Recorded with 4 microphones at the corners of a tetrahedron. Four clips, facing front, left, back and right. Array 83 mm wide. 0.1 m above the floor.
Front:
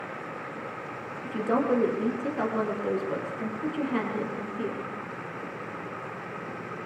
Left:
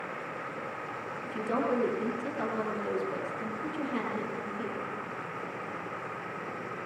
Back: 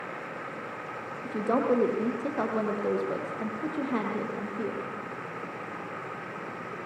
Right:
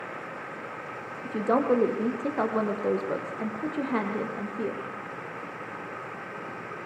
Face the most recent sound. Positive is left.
turn(degrees=-115)